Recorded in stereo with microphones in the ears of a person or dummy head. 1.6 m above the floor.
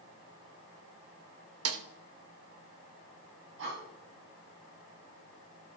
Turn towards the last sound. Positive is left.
turn(degrees=-60)  # may be behind; listen again after turning